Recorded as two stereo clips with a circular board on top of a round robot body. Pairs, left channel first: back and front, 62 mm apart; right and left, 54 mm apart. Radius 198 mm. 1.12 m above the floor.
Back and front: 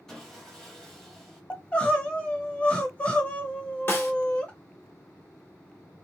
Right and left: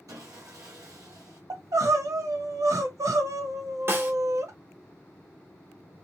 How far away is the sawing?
About 0.7 m.